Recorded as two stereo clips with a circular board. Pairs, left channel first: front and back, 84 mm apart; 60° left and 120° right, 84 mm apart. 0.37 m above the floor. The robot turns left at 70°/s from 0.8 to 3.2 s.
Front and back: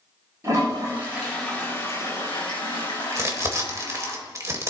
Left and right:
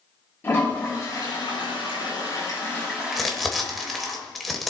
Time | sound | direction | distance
0.4 | a toilet flushing | 125° left | 6.5 m
3.1 | crumpling | 155° left | 1.5 m